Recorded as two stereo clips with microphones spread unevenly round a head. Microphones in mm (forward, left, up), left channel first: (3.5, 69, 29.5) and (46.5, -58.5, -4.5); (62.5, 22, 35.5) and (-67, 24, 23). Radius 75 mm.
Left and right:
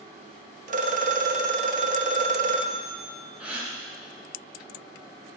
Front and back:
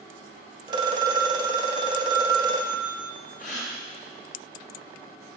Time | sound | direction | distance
0.7 | a phone ringing | 120° right | 0.7 m
3.4 | a gasp | 15° left | 3.5 m